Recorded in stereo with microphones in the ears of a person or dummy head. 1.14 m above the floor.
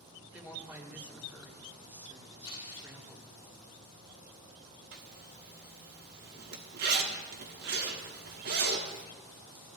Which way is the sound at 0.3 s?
10° right (ahead or behind).